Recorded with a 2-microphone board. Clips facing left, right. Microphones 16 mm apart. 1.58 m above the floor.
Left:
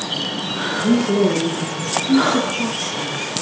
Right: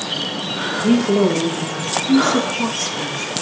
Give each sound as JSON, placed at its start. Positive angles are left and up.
{"t": 0.8, "sound": "a woman speaking", "side_deg": -75, "distance_m": 2.5}